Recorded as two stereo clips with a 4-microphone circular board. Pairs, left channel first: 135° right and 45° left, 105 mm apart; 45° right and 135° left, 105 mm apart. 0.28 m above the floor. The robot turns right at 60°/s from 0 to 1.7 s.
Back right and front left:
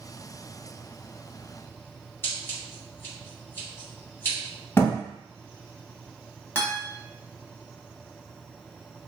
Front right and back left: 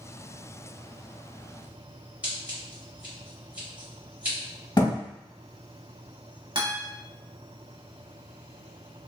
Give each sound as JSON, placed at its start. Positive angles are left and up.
{"t": 2.2, "sound": "scissors", "azimuth_deg": -165, "distance_m": 1.5}
{"t": 4.8, "sound": "a thud", "azimuth_deg": -75, "distance_m": 0.7}
{"t": 6.5, "sound": "a guitar", "azimuth_deg": 155, "distance_m": 0.9}